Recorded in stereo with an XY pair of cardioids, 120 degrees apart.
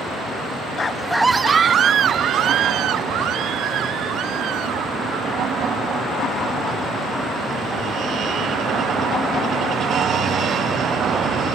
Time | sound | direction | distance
0.8 | a scream | 35° left | ?